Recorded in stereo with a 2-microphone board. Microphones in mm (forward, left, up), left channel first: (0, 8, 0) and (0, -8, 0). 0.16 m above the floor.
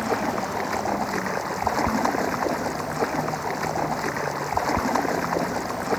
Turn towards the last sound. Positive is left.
turn(degrees=0)  # may be behind; listen again after turning